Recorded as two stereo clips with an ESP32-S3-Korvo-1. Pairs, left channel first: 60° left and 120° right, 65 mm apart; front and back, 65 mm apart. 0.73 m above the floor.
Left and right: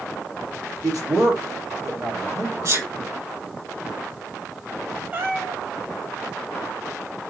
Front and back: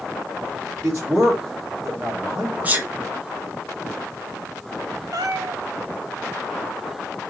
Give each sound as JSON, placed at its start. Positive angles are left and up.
{"t": 0.8, "sound": "a man speaking", "azimuth_deg": -125, "distance_m": 1.7}
{"t": 2.6, "sound": "a sneeze", "azimuth_deg": -120, "distance_m": 1.2}
{"t": 5.1, "sound": "a cat meowing", "azimuth_deg": 180, "distance_m": 1.0}